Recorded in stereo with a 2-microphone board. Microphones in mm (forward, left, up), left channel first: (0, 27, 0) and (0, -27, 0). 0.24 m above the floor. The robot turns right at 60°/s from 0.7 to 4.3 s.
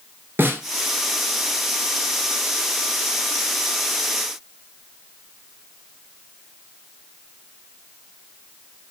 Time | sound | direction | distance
0.4 | a snare drum | 45° right (ahead or behind) | 0.8 m